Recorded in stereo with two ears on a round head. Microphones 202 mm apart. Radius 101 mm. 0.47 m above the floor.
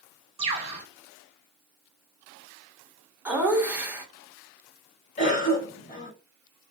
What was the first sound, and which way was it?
A bird, 25° right (ahead or behind).